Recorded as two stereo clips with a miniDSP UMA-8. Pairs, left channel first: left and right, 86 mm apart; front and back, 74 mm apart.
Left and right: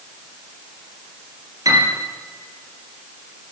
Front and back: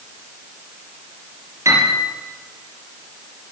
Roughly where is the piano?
Behind right.